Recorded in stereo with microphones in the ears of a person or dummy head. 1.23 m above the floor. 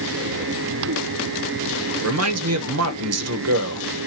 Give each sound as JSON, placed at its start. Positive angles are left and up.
{"t": 2.0, "sound": "a man speaking", "side_deg": -75, "distance_m": 0.7}